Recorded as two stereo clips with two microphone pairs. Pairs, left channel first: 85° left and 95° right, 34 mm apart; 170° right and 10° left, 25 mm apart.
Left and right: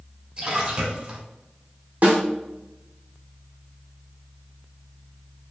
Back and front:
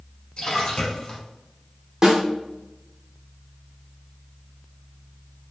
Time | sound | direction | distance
0.4 | a splash | 130° right | 1.1 m
2.0 | a snare drum | 55° right | 1.1 m